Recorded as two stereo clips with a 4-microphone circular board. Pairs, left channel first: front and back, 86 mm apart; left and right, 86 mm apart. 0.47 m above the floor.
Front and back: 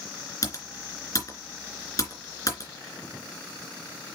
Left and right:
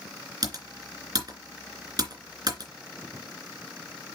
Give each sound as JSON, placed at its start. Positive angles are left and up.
{"t": 0.4, "sound": "typing on a keyboard", "azimuth_deg": -55, "distance_m": 2.5}